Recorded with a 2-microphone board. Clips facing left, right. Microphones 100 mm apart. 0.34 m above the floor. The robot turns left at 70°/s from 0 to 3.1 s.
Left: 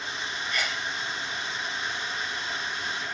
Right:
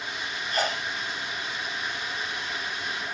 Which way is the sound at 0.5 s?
40° right (ahead or behind).